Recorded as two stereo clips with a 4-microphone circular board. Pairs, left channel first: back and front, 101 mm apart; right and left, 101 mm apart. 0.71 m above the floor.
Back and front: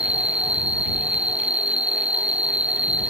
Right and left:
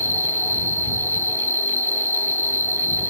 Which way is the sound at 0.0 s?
65° left.